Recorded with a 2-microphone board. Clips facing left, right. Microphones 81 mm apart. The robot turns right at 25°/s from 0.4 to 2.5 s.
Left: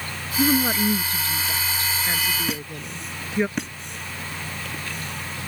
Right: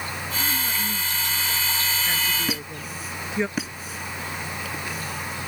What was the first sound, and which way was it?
A woman speaking, 55° left (ahead or behind).